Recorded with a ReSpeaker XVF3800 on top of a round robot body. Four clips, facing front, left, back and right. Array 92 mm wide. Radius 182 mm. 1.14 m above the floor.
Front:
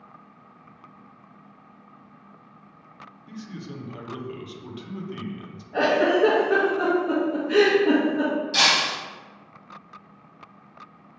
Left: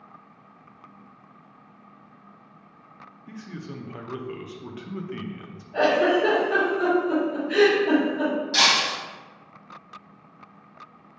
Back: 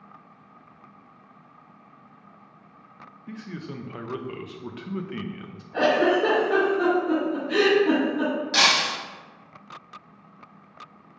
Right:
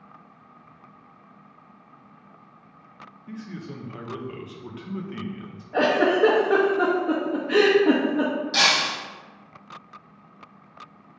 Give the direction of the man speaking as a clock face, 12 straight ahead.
6 o'clock.